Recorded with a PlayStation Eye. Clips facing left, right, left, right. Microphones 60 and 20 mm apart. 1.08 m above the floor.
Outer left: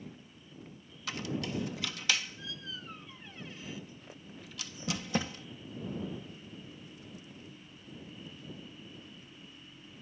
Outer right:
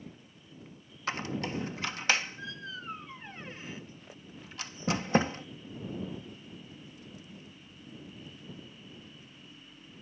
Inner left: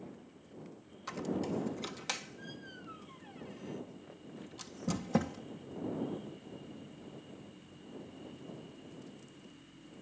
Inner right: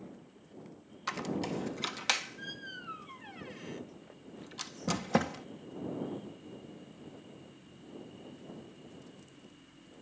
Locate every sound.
1.1 s a squeak: 40° right (ahead or behind)